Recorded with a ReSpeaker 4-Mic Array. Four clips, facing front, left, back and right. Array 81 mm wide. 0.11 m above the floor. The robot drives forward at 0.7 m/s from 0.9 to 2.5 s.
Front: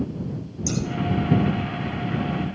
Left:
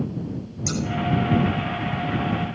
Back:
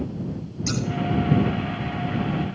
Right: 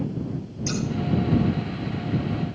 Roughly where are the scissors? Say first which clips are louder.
Left 1 dB, even; behind left.